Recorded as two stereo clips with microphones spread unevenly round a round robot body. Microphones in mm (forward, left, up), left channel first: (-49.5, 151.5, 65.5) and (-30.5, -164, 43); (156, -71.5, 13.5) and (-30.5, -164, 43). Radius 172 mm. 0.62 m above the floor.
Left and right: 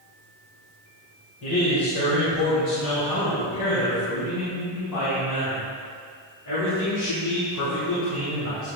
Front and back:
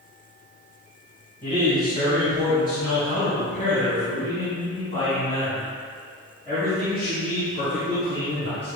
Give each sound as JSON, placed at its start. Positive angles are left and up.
{"t": 1.4, "sound": "a man speaking", "azimuth_deg": 95, "distance_m": 3.0}